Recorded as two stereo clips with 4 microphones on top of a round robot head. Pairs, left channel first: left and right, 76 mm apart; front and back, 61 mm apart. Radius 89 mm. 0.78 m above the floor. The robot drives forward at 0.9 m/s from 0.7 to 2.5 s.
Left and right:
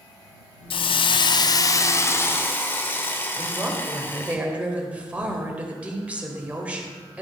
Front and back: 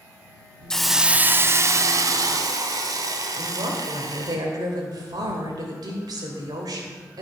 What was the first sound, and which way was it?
A hiss, 80° left.